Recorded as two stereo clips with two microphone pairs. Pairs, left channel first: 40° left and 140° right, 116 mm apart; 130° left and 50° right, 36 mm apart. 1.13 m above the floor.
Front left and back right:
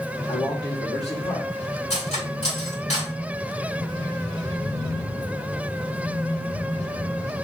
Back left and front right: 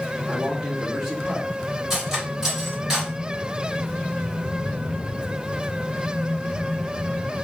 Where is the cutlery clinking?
25° left, 3.5 m.